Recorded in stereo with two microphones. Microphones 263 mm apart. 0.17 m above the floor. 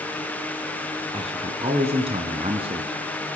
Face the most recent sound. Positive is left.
turn(degrees=-20)  # may be behind; listen again after turning